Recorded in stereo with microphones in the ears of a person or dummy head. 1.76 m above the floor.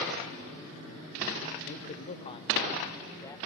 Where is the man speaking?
50° left (ahead or behind), 1.0 m; by 3.4 s 20° left (ahead or behind), 1.9 m.